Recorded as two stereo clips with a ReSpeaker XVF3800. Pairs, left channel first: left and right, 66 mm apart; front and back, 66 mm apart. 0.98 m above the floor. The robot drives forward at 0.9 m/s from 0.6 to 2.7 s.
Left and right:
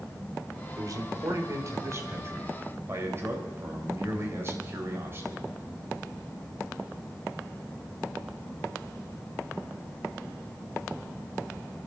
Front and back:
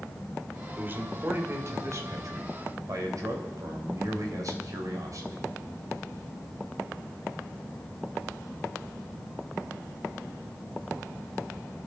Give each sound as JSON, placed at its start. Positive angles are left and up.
{"t": 0.8, "sound": "a man speaking", "azimuth_deg": -120, "distance_m": 2.5}